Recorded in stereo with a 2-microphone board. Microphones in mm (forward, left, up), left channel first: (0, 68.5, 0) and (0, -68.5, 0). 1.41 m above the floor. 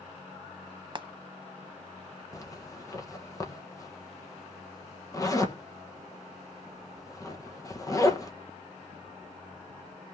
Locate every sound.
0.9 s frying: 35° right (ahead or behind), 0.8 m
2.3 s a zipper: 25° left (ahead or behind), 1.5 m